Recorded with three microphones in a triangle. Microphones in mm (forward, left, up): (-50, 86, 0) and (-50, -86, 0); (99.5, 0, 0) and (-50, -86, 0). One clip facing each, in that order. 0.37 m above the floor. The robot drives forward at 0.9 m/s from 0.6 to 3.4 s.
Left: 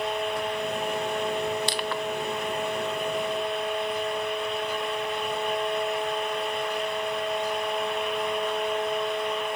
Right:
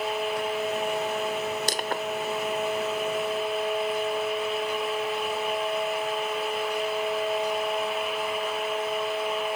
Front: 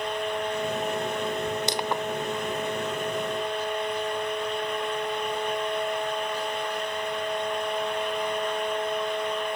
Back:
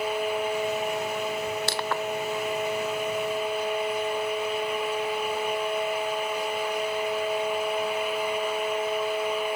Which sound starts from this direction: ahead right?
Crushing, at 1.7 s.